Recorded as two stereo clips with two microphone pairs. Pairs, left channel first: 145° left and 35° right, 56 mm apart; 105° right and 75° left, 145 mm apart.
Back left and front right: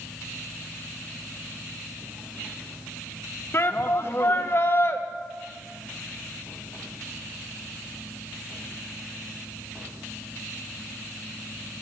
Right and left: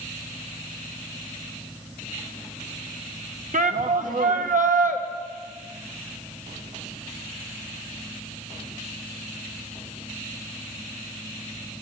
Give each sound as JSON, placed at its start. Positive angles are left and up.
{"t": 3.5, "sound": "a shout", "azimuth_deg": 95, "distance_m": 1.3}